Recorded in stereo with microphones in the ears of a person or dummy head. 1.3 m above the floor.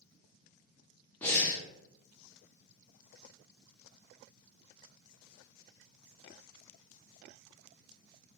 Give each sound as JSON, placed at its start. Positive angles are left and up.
{"t": 1.2, "sound": "breathing", "side_deg": 10, "distance_m": 0.6}